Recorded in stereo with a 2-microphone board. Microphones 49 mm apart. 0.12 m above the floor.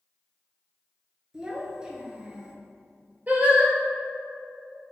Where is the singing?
35° right (ahead or behind), 0.9 m.